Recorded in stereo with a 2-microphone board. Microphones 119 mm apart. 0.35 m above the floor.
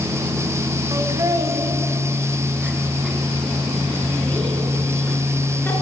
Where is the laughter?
35° right (ahead or behind), 3 m; by 5.7 s 15° left (ahead or behind), 5.5 m.